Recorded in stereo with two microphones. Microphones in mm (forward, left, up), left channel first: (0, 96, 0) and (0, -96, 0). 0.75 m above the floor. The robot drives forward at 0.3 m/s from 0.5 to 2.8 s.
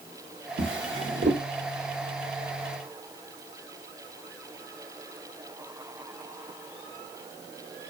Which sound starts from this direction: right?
A drawer, at 0.6 s.